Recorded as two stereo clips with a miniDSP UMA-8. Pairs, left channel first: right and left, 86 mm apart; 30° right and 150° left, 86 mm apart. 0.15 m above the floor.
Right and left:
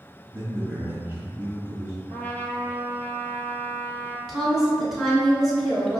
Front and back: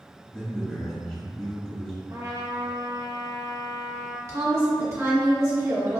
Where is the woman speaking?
175° right, 1.7 m.